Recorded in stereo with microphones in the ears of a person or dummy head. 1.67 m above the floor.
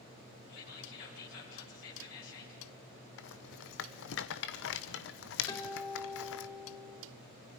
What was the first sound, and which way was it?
Whispering, 70° left (ahead or behind).